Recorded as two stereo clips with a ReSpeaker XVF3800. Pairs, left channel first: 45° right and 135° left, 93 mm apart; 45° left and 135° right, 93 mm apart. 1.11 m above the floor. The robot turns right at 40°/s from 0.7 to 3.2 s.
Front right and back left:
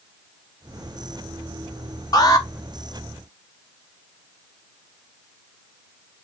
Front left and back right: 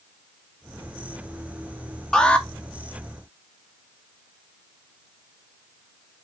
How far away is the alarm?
About 1.2 m.